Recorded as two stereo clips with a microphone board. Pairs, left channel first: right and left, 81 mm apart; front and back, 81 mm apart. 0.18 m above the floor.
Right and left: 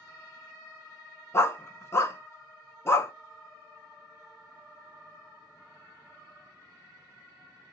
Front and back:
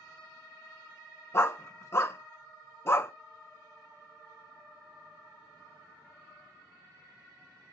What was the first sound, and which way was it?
A dog barking, 45° right.